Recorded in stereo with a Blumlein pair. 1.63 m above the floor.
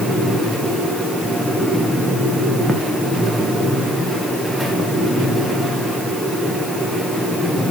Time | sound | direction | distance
0.0 | a fan | straight ahead | 1.7 m